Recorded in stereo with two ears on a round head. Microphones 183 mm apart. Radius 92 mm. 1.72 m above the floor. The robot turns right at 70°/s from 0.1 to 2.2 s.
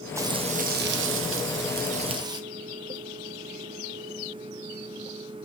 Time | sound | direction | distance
0.2 | frying | 165° right | 1.2 m